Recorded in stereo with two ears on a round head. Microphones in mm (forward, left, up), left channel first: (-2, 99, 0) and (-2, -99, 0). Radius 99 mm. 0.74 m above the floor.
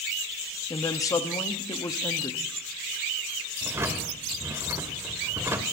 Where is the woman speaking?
15° left (ahead or behind), 1.0 m.